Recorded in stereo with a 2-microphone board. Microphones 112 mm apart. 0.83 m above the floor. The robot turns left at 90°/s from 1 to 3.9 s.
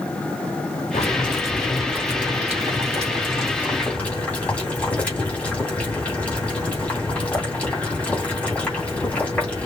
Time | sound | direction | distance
0.9 | boiling | 70° left | 3 m